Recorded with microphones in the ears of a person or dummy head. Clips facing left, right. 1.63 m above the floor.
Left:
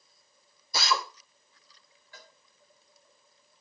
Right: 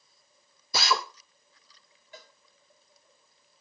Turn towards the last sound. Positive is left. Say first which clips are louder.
# right 4 dB
turn(degrees=-25)  # may be behind; listen again after turning